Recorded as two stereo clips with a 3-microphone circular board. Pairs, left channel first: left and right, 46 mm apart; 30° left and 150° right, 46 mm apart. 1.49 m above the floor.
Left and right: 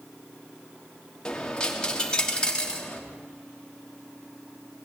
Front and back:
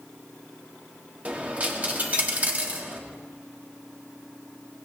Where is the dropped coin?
155° left, 1.4 m.